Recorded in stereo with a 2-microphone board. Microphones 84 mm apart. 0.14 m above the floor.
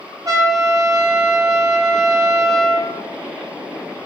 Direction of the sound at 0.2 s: 45° right (ahead or behind).